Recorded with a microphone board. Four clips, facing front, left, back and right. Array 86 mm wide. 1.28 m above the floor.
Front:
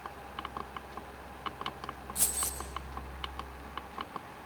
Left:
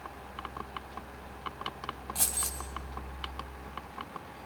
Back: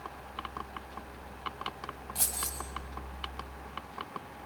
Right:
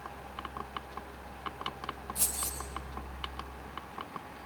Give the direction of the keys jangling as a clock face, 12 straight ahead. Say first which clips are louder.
Left 1 dB, even; 8 o'clock.